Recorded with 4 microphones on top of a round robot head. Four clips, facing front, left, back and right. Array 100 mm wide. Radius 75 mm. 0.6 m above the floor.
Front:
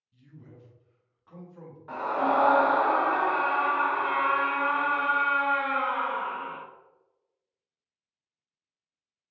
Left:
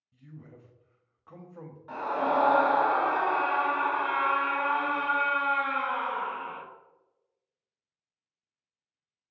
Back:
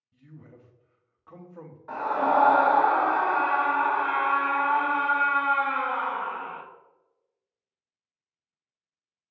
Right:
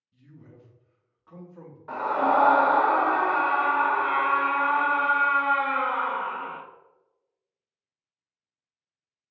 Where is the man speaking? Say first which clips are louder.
Left 1 dB, back 2 dB; 150° left, 0.8 m.